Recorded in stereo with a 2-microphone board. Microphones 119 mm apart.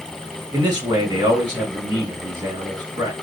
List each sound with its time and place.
0.5 s a man speaking: 35° right (ahead or behind), 1.4 m